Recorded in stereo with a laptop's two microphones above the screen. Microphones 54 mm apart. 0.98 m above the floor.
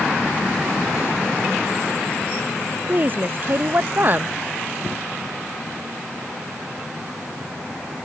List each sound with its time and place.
2.9 s a woman speaking: 40° right (ahead or behind)